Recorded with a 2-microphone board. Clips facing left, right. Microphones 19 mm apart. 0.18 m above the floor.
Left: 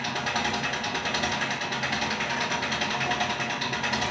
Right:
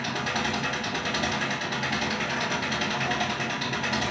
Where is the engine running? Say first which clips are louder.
Even; centre (ahead or behind), 0.8 m.